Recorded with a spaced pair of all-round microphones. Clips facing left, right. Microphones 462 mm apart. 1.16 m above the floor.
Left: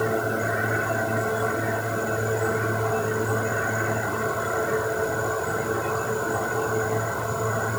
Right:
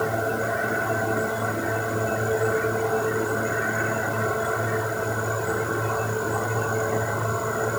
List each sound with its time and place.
Only background noise.